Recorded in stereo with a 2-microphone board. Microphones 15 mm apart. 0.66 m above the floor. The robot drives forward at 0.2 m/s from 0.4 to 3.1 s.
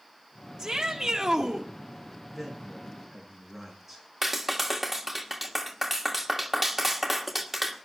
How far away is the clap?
About 1.7 m.